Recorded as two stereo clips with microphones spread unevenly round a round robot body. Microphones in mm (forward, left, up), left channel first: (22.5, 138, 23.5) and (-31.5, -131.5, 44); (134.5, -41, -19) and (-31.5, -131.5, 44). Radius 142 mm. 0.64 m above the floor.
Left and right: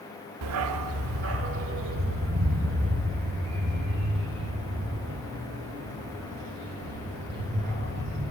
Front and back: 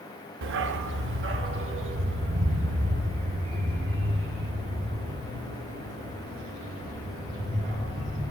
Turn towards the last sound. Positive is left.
turn(degrees=-150)